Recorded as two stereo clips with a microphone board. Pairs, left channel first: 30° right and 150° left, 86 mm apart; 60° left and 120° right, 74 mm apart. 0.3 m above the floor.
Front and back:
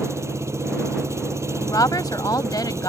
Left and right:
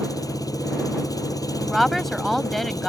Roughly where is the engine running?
Left.